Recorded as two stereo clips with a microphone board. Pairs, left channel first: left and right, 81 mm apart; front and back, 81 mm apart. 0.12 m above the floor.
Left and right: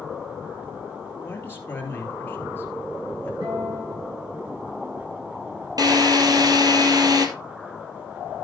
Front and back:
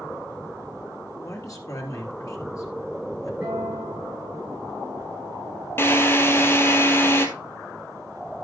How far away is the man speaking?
About 2.5 m.